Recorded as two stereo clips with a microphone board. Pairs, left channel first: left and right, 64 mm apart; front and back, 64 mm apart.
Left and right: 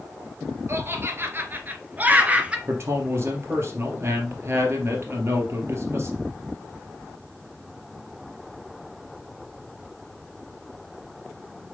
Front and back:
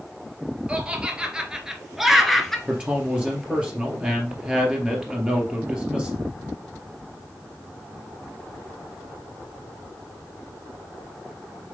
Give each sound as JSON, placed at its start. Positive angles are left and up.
{"t": 0.7, "sound": "laughter", "azimuth_deg": -115, "distance_m": 1.7}
{"t": 2.7, "sound": "a man speaking", "azimuth_deg": -110, "distance_m": 2.5}